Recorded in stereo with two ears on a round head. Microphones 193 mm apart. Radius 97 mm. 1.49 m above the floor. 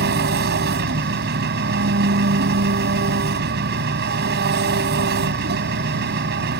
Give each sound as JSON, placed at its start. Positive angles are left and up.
{"t": 0.0, "sound": "an engine running", "side_deg": -50}